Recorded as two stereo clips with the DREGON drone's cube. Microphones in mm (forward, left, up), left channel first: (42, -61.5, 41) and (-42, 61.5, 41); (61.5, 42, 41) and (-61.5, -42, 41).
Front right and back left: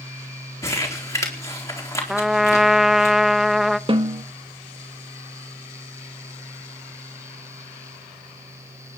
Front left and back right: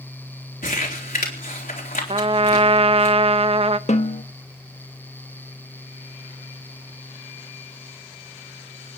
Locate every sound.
0.6 s crumpling: 15° left, 4 m
2.1 s a trumpet: 150° right, 0.6 m
3.9 s a snare drum: 70° left, 1.3 m